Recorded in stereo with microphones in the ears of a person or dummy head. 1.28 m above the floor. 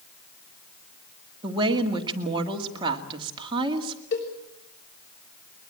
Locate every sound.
1.4 s a woman speaking: 25° right (ahead or behind), 2 m
4.1 s a cowbell: 60° left (ahead or behind), 4 m